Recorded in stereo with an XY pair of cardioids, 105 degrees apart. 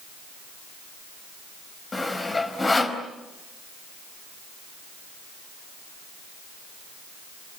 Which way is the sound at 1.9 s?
20° left.